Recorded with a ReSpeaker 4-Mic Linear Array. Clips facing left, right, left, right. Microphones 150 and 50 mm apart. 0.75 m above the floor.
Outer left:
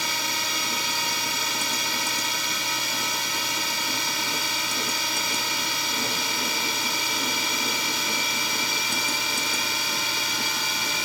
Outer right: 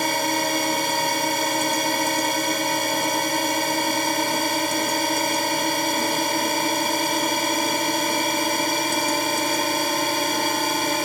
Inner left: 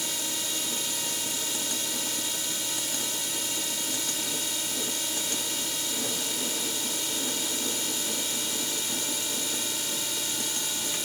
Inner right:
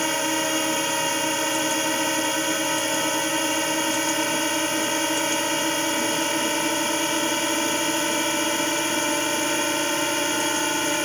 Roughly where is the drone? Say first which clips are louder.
Outer right 10 dB, inner right 12 dB; right.